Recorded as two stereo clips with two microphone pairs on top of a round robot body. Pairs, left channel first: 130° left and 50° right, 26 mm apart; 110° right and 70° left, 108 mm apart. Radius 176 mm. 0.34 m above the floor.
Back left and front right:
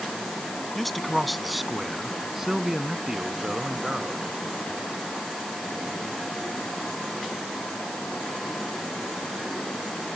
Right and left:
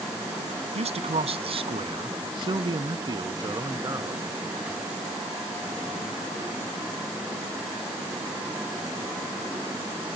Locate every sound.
0.8 s a man speaking: 50° left; by 4.3 s 10° left